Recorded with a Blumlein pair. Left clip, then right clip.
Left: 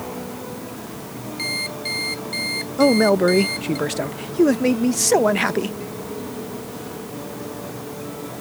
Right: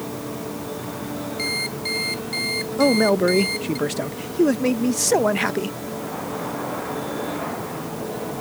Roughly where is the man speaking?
Ahead.